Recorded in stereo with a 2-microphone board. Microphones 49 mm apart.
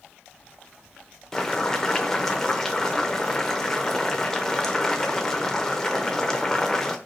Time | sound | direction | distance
1.3 | boiling | 10° left (ahead or behind) | 0.6 m